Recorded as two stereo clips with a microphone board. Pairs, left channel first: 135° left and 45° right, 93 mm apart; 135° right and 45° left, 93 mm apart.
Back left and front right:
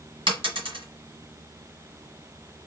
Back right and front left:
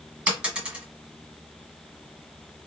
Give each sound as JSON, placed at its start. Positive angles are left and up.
{"t": 0.3, "sound": "a dropped coin", "azimuth_deg": -35, "distance_m": 1.5}